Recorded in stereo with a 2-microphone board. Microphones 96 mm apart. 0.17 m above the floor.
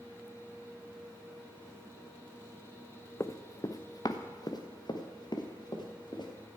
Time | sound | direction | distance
3.2 | running footsteps | 30° left (ahead or behind) | 0.8 m